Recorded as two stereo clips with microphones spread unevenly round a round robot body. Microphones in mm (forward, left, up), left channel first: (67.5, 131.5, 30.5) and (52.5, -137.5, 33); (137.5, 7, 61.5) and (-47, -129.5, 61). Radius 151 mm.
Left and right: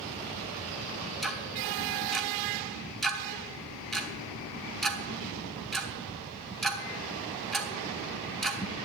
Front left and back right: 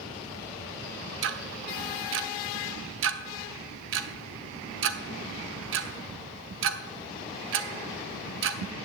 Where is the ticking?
175° left, 0.7 m.